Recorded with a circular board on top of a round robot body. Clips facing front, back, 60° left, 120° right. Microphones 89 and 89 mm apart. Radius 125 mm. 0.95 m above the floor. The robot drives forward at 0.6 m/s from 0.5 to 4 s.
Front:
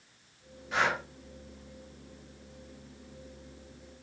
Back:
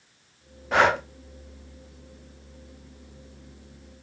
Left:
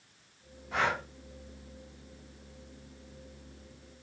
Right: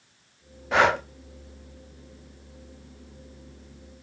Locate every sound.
0.7 s breathing: 140° right, 0.6 m; by 1.0 s 150° right, 0.8 m